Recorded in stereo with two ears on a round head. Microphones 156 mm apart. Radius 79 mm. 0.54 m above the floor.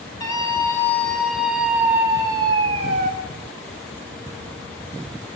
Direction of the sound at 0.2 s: 25° left (ahead or behind).